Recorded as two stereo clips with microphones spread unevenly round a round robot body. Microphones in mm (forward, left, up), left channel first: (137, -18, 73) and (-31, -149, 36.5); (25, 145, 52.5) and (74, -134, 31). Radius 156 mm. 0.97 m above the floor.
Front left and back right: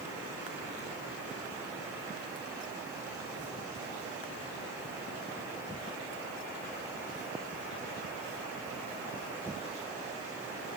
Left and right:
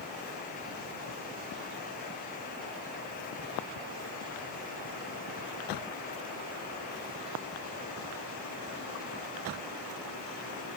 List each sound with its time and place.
Only background noise.